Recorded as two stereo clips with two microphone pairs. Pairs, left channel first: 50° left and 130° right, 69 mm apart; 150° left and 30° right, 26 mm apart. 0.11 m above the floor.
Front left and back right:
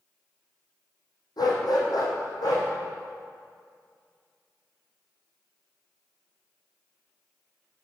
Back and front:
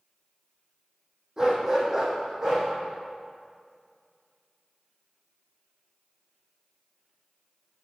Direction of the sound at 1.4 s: 35° left.